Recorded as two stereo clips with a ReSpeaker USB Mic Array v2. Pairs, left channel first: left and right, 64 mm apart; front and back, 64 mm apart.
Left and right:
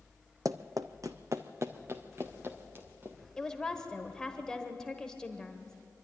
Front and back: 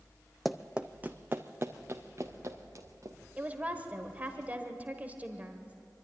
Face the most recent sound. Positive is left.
turn(degrees=160)